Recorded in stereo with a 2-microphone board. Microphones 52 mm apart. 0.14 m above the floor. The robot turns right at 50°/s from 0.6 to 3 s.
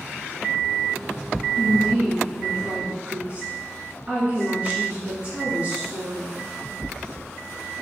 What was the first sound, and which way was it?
A woman speaking, 130° right.